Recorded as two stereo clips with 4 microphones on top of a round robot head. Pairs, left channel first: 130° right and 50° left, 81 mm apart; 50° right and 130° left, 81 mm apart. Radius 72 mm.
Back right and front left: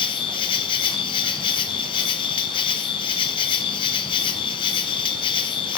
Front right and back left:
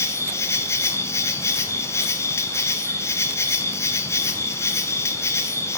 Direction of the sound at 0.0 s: 105° right.